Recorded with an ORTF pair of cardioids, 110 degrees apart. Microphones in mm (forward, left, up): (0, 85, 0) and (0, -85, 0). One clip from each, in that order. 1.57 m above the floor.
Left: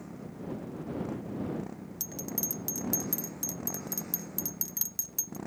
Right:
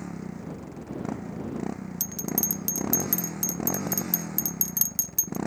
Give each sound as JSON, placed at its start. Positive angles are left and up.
{"t": 0.0, "sound": "a motorcycle", "azimuth_deg": -60}
{"t": 2.0, "sound": "a bell", "azimuth_deg": -35}